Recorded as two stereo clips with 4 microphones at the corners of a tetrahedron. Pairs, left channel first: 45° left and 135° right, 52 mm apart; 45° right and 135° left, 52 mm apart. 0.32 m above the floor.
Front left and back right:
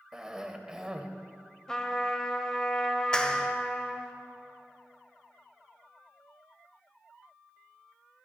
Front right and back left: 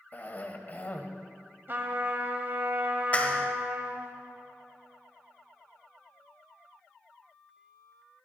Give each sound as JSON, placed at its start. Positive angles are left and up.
{"t": 0.1, "sound": "a cough", "azimuth_deg": -65, "distance_m": 1.1}
{"t": 1.7, "sound": "a trumpet", "azimuth_deg": 115, "distance_m": 0.9}
{"t": 3.1, "sound": "a clap", "azimuth_deg": -15, "distance_m": 1.0}